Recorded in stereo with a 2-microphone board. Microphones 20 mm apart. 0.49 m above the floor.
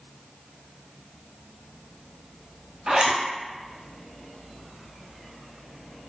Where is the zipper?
45° right (ahead or behind), 0.8 m.